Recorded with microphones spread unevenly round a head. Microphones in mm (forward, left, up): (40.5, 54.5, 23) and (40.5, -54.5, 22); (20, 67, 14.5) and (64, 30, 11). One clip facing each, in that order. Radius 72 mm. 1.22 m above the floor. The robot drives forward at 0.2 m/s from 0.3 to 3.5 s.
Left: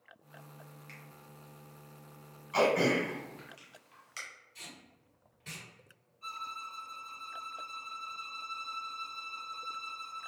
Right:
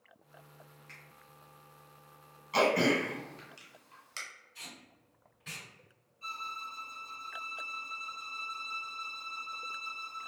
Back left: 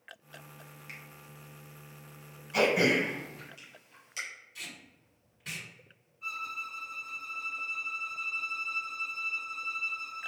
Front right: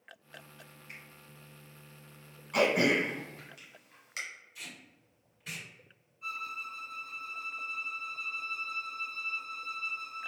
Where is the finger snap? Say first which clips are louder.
Left 3 dB, back left 2 dB; 145° left, 0.6 m.